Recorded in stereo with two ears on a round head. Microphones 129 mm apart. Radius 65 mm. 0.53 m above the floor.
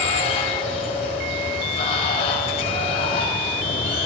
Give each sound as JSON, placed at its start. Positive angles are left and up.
{"t": 0.0, "sound": "running water", "side_deg": 45, "distance_m": 2.0}